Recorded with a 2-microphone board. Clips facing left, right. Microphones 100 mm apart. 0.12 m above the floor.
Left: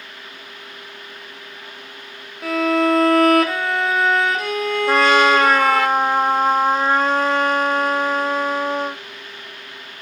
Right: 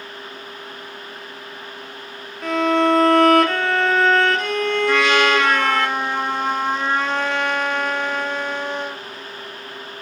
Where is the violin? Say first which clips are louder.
Even; 5° left (ahead or behind), 0.9 m.